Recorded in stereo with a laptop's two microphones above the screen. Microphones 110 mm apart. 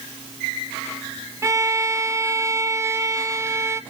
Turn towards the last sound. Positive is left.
turn(degrees=-25)  # may be behind; listen again after turning